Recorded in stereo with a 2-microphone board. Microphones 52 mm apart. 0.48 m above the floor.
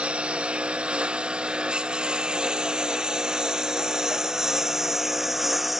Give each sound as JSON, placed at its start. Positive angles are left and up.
{"t": 0.0, "sound": "a lawn mower", "side_deg": -20}